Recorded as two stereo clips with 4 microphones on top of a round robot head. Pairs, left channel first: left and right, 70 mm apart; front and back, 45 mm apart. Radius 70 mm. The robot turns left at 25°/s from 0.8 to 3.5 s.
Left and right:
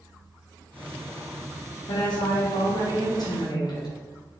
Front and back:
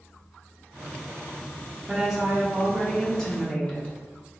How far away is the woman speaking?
About 1.1 m.